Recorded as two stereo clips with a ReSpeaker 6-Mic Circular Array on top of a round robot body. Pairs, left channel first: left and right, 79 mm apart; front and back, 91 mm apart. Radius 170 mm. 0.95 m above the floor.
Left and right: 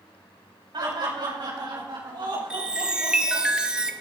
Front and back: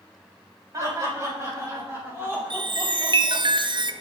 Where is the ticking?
I don't hear ticking.